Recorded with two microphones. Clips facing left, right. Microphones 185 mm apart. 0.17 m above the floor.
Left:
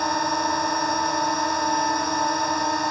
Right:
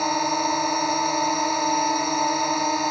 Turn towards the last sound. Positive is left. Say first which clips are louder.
# right 1 dB
turn(degrees=-5)  # may be behind; listen again after turning